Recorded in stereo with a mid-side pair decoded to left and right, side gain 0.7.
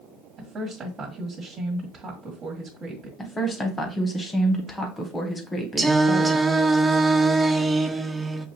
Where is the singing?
15° right, 0.6 m.